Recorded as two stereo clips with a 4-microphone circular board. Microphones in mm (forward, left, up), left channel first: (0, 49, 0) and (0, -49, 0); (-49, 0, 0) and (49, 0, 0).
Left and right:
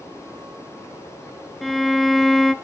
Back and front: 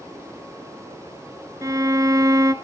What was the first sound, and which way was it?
A violin, 5° left.